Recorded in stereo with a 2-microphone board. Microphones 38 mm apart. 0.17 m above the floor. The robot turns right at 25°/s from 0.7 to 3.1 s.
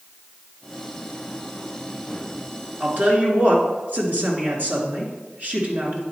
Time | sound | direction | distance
2.8 | a woman speaking | 50° right (ahead or behind) | 2 m